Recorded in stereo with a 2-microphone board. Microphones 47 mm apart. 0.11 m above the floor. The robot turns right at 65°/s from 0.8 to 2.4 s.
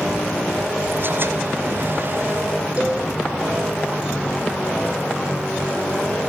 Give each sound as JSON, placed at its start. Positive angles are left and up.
{"t": 2.8, "sound": "a cowbell", "side_deg": -30, "distance_m": 4.0}